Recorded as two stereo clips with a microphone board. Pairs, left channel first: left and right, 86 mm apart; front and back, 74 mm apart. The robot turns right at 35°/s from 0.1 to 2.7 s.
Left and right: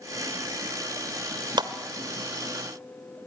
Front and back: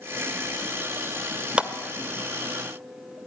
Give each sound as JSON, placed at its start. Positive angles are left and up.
{"t": 1.6, "sound": "a clap", "azimuth_deg": -110, "distance_m": 1.4}